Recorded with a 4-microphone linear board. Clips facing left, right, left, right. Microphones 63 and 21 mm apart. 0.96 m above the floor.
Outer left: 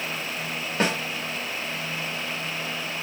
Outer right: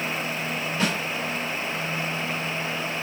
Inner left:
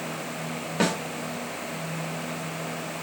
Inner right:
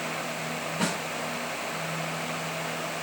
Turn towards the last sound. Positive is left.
turn(degrees=45)  # may be behind; listen again after turning